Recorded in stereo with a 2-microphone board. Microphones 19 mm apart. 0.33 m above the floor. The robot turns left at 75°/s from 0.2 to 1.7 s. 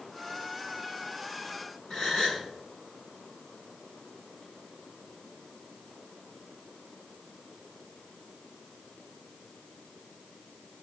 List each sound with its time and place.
1.9 s a gasp: 40° left (ahead or behind), 3 m